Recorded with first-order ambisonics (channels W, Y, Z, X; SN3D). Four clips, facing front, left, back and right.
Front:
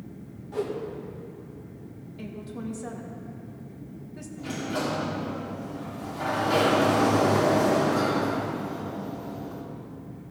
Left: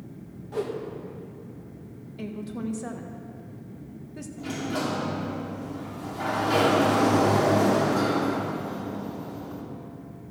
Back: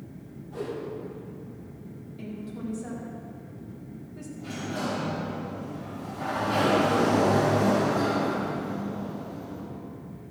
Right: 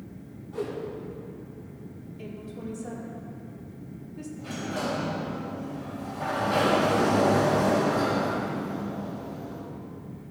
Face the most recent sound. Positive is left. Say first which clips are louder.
# left 3 dB, front 3 dB
turn(degrees=60)